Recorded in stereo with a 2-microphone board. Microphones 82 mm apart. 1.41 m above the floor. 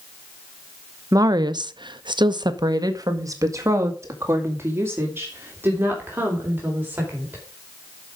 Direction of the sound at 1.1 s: 45° right (ahead or behind).